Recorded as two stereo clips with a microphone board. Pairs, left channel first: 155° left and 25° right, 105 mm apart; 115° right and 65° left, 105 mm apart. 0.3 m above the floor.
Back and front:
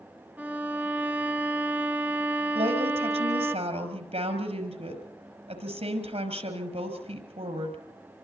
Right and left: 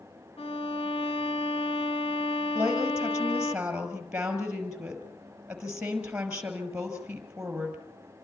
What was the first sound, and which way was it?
A violin, 95° right.